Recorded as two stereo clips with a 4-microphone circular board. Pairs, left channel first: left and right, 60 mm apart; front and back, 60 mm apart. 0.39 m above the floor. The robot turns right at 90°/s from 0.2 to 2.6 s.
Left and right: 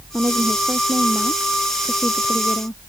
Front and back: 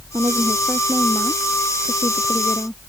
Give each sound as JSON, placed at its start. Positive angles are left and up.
{"t": 0.1, "sound": "a woman speaking", "azimuth_deg": -150}